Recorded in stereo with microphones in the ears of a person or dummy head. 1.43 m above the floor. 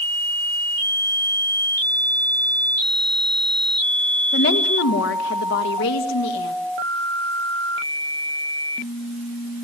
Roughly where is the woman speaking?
Left.